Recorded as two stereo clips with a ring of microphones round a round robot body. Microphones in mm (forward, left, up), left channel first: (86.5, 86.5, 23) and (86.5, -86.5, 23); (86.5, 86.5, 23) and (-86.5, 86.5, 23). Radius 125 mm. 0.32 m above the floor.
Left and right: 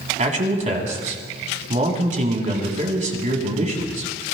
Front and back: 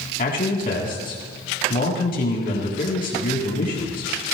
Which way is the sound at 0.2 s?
50° right.